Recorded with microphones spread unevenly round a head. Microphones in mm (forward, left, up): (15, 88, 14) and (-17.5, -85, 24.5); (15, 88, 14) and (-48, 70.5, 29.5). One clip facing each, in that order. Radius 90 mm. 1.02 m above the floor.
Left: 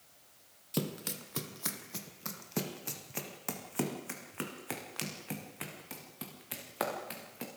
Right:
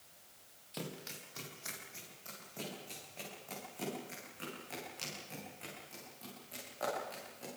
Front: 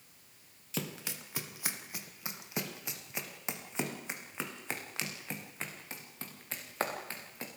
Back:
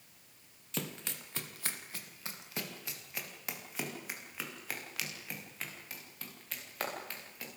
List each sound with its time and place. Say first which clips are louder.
0.7 s running footsteps: left 9 dB, front 1 dB; 110° left, 2 m; by 7.5 s 75° left, 7 m